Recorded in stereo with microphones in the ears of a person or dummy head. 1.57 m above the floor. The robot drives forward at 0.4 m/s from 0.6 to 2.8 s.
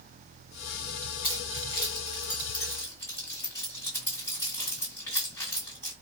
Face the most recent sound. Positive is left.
turn(degrees=10)  # may be behind; listen again after turning